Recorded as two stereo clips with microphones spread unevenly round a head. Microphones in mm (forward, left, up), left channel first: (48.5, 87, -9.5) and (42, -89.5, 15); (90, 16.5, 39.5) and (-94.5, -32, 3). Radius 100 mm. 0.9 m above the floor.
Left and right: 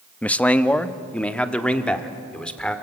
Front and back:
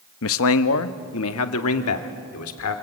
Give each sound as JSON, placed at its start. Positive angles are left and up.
{"t": 0.2, "sound": "a man speaking", "azimuth_deg": 10, "distance_m": 0.9}